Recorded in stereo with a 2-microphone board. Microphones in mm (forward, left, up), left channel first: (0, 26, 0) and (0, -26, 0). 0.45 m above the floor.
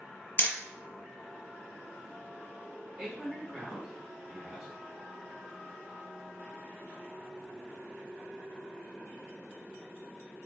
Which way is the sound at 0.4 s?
40° left (ahead or behind).